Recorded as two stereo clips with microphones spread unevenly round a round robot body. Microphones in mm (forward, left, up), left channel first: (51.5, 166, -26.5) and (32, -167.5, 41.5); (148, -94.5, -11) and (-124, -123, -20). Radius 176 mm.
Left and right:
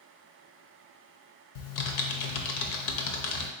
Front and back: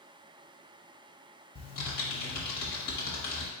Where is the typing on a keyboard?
60° left, 0.7 m.